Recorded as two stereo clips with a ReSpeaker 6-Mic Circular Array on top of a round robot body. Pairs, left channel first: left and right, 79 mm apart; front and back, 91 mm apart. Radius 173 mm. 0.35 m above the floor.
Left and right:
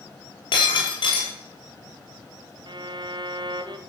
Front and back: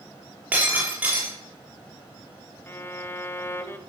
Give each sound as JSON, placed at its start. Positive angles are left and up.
{"t": 0.5, "sound": "breaking glass", "azimuth_deg": 105, "distance_m": 6.5}
{"t": 2.7, "sound": "a violin", "azimuth_deg": -65, "distance_m": 1.2}